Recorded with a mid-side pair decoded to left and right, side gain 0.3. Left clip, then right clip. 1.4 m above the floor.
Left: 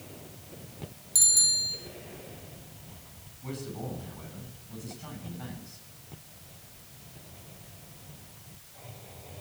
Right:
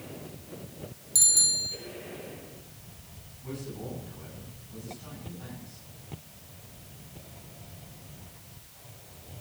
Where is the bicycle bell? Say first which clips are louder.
Even; 5° right, 3 m.